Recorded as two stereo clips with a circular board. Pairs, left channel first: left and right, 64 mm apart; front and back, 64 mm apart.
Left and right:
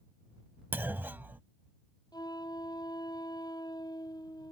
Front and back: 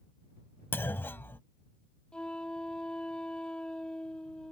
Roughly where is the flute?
Left.